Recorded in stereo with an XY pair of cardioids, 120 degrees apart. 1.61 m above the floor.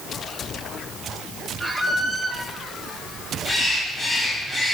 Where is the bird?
25° left, 3 m.